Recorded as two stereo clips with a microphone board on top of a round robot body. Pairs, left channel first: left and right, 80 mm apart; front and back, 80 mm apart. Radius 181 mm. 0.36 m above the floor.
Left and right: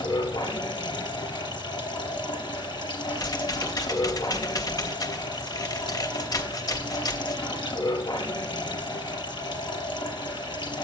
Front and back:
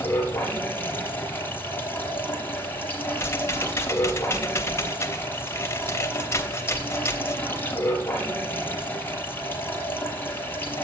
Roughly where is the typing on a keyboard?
Ahead left.